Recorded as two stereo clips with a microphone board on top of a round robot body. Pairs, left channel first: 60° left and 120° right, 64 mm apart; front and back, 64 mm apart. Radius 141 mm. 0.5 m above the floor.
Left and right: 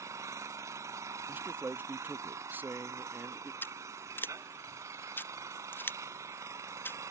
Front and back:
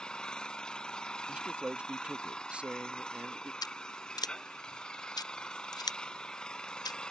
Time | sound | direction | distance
0.0 | an engine running | 75° right | ?
1.3 | a man speaking | 125° right | ?
3.6 | scissors | straight ahead | ?